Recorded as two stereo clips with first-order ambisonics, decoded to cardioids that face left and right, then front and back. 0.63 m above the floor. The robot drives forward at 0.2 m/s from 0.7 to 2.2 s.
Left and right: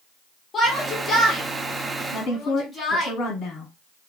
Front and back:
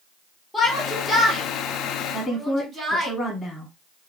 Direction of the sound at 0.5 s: 80° left.